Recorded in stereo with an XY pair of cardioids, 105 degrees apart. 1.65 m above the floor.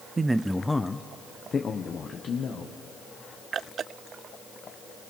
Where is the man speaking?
30° right, 0.6 m; by 2.7 s 50° left, 1.9 m.